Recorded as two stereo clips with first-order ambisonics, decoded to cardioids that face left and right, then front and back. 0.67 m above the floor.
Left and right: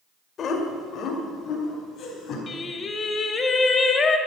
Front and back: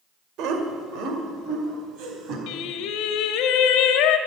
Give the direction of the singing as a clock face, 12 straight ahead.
11 o'clock.